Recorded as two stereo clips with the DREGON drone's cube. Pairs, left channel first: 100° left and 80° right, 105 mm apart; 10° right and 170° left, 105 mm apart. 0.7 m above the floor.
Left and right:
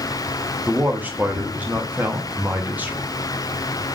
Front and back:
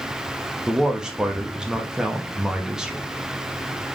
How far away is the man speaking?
About 0.8 m.